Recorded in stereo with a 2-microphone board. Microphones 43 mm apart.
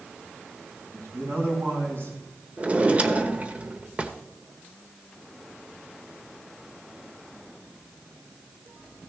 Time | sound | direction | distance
0.9 | a man speaking | 70° right (ahead or behind) | 4.5 m
2.6 | a drawer | 30° right (ahead or behind) | 1.1 m